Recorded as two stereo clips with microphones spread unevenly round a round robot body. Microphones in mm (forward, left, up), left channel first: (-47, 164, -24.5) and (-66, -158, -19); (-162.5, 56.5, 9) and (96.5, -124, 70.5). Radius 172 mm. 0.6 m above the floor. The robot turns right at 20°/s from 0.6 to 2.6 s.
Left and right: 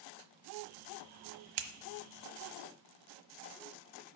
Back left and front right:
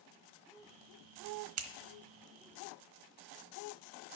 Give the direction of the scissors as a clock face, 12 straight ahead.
3 o'clock.